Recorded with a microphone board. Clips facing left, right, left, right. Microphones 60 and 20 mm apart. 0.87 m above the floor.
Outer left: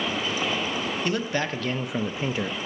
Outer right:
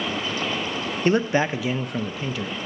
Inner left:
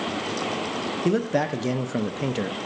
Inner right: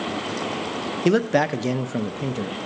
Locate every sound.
1.1 s a man speaking: 35° right (ahead or behind), 0.7 m; by 2.7 s 40° left (ahead or behind), 0.7 m